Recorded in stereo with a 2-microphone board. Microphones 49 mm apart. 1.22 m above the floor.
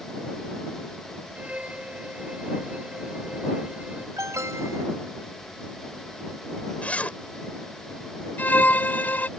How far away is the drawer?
I don't hear a drawer.